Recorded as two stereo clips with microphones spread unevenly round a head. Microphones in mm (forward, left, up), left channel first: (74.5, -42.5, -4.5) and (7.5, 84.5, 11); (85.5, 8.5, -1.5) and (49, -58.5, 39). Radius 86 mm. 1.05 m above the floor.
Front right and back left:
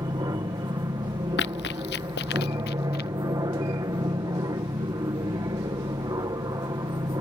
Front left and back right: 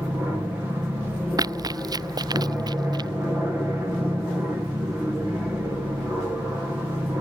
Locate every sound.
0.0 s an aircraft: 140° left
1.4 s running footsteps: 95° right; by 3.1 s 100° right